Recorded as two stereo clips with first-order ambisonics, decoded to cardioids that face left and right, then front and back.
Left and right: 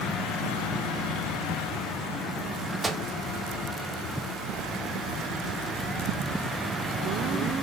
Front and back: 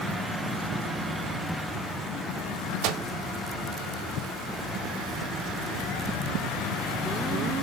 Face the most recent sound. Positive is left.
turn(degrees=-170)